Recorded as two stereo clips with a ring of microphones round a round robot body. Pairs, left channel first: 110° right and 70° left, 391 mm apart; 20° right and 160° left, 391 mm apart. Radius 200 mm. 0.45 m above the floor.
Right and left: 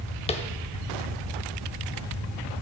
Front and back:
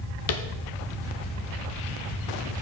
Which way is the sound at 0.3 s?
45° right.